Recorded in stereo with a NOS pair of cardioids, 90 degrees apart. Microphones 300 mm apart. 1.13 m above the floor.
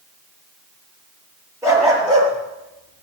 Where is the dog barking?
10° right, 7 m; by 3.0 s 20° right, 6.5 m.